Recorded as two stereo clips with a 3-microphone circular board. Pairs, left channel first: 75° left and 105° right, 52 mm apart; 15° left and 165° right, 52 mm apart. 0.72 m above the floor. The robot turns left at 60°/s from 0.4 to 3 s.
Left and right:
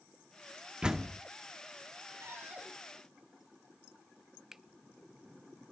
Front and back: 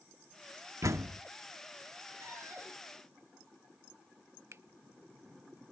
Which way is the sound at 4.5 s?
175° left.